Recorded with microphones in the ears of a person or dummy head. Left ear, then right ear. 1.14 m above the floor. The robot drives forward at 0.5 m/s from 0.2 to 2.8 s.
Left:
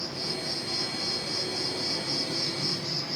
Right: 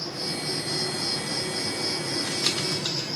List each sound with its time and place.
0.0 s an insect: 45° right (ahead or behind), 5 m; by 3.2 s 40° right (ahead or behind), 6 m